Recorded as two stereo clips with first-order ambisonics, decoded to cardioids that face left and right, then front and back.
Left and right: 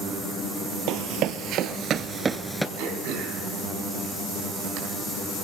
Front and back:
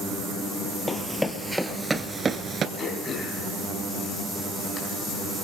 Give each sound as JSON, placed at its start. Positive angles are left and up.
{"t": 0.9, "sound": "running footsteps", "azimuth_deg": -80, "distance_m": 1.1}
{"t": 2.8, "sound": "throat clearing", "azimuth_deg": -75, "distance_m": 4.0}